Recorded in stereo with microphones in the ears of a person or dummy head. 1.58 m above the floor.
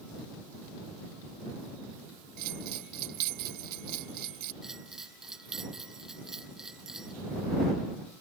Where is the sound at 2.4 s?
50° right (ahead or behind).